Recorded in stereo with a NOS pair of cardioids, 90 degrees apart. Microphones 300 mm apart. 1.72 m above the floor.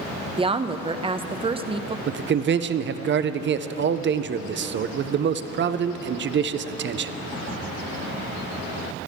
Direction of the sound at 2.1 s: 40° right.